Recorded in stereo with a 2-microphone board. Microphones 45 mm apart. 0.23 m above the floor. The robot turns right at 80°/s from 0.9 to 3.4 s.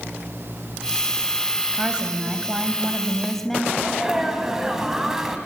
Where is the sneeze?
10° right (ahead or behind), 1.3 m.